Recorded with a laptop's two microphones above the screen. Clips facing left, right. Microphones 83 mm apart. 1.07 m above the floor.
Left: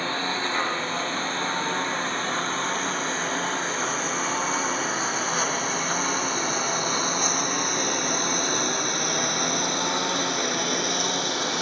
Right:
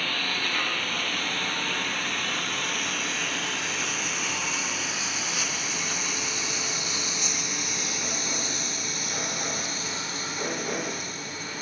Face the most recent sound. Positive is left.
turn(degrees=70)  # may be behind; listen again after turning